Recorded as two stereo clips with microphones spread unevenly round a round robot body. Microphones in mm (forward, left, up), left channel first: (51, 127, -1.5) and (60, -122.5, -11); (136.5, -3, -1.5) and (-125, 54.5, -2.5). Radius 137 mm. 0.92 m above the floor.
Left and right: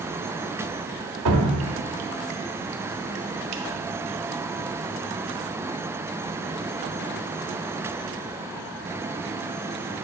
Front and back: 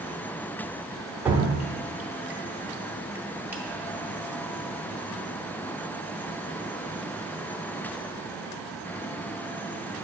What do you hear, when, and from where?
1.2 s dripping: 110° right, 0.7 m